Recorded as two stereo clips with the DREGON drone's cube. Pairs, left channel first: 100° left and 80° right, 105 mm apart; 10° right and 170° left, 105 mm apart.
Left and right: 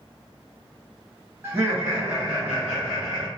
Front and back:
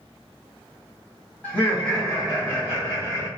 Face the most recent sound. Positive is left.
turn(degrees=-170)